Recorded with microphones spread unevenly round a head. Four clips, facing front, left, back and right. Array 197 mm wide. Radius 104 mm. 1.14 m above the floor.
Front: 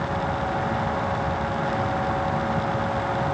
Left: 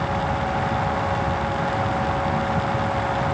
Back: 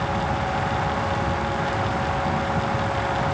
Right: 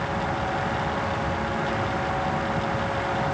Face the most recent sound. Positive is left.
No sound to turn to.